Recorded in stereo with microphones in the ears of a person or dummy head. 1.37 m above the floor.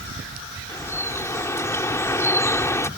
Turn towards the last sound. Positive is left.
turn(degrees=15)  # may be behind; listen again after turning